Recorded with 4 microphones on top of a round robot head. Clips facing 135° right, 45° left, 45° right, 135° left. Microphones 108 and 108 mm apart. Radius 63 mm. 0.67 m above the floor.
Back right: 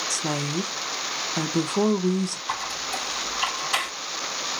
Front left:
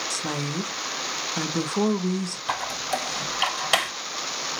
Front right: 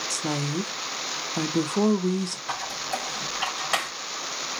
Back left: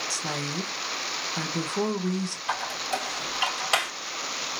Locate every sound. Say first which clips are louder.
0.1 s a woman speaking: back right 3 dB, front right 6 dB; 75° right, 0.8 m
2.5 s a squeak: front left 3 dB, back left 1 dB; 60° left, 3 m